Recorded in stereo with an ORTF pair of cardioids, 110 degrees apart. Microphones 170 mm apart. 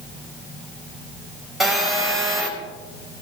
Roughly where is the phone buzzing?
Ahead.